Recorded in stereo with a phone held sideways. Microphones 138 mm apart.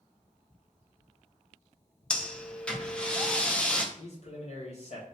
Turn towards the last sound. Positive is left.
turn(degrees=50)  # may be behind; listen again after turning